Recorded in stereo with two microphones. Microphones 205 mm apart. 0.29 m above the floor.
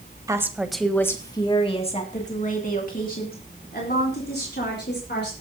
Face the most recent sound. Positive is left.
turn(degrees=55)  # may be behind; listen again after turning